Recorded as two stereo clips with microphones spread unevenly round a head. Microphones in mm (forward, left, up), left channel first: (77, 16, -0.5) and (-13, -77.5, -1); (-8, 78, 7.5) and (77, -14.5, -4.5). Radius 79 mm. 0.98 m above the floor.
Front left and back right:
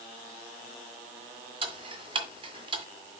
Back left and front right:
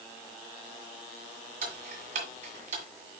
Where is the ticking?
90° right, 1.9 m.